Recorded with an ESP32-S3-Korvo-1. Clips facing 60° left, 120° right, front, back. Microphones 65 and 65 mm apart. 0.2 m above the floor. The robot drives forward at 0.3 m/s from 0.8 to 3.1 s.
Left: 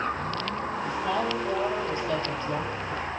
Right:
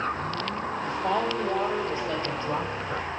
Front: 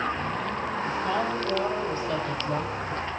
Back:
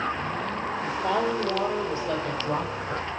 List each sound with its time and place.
0.8 s a woman speaking: straight behind, 6.5 m